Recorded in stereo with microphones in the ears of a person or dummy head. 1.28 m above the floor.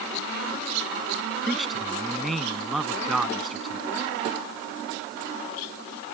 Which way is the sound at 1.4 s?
5° right (ahead or behind).